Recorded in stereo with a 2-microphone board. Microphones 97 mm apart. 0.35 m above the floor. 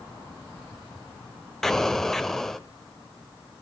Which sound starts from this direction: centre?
An explosion, at 1.6 s.